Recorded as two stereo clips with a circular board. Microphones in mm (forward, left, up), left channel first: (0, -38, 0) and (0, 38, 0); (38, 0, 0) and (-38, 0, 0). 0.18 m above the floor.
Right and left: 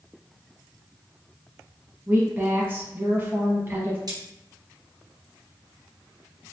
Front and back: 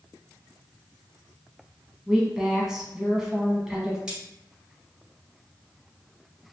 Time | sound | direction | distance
2.1 | a woman speaking | 105° left | 1.2 m
4.1 | cutlery clinking | 105° left | 1.5 m